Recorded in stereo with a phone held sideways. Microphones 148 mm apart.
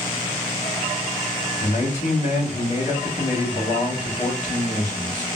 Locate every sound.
1.6 s a man speaking: 50° left (ahead or behind), 2.5 m